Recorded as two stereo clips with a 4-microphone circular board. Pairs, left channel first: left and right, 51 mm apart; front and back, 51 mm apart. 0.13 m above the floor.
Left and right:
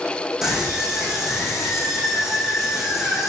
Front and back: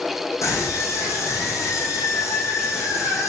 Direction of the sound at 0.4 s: Straight ahead.